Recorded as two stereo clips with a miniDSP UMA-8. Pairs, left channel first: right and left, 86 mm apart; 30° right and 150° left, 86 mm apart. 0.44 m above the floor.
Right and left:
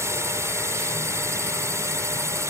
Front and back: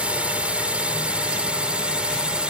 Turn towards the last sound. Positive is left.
turn(degrees=80)